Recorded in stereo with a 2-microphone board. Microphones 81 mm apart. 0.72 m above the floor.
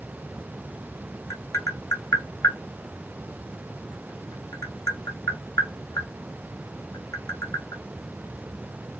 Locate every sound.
1.3 s tapping: 35° left (ahead or behind), 1.2 m